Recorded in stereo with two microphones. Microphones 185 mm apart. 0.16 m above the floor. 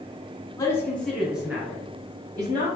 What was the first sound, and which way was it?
A man speaking, 20° left (ahead or behind).